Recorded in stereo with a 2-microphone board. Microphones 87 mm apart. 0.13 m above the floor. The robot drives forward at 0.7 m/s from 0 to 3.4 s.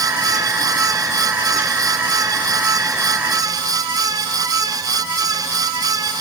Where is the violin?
I don't hear a violin.